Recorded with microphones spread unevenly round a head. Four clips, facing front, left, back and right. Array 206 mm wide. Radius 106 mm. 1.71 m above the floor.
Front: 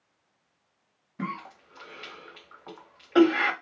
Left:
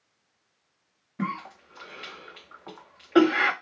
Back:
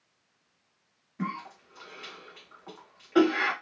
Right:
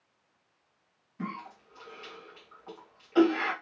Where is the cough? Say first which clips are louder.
Left 6 dB, even; 80° left, 0.8 m.